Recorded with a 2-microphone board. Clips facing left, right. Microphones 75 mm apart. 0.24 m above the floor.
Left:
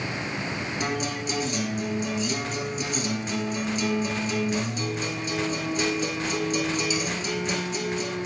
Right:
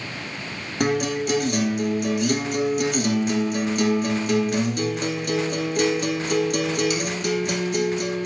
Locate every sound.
0.8 s a guitar: 55° right (ahead or behind), 1.3 m